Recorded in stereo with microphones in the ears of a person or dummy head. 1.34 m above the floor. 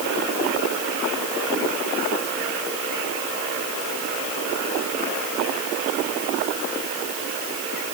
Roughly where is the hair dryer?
I don't hear a hair dryer.